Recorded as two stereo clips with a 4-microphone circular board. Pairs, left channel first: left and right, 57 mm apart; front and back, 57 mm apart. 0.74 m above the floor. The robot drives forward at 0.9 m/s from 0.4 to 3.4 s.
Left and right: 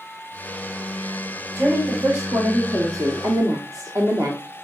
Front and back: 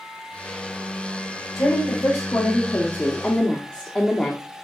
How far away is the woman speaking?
About 2.5 m.